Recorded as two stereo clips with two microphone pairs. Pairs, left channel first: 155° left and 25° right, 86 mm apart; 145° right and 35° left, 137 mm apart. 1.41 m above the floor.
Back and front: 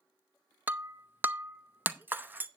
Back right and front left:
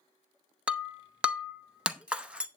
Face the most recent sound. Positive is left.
turn(degrees=-35)